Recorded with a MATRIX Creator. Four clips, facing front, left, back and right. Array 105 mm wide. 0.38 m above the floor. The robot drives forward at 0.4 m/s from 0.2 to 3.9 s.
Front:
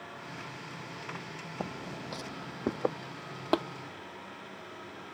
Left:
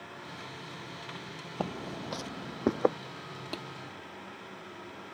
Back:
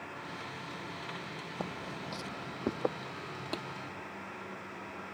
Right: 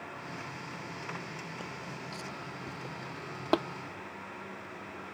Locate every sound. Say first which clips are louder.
1.6 s footsteps: left 6 dB, front 1 dB; 80° left; by 3.0 s 85° left
3.5 s tapping: right 14 dB, front 13 dB; 45° right; by 3.6 s 50° right